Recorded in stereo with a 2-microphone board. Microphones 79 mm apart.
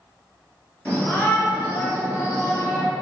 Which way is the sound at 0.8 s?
20° left (ahead or behind).